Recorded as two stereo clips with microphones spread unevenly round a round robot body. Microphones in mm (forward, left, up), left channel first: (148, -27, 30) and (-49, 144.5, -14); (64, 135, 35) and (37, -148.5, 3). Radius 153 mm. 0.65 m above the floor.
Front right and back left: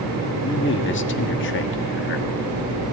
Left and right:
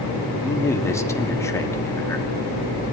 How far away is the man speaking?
About 1.6 m.